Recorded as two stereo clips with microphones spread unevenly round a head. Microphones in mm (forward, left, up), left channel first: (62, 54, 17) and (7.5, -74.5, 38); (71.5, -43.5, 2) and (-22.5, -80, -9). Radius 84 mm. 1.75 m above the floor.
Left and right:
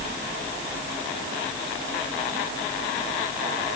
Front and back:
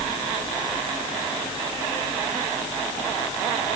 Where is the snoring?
No snoring in this recording.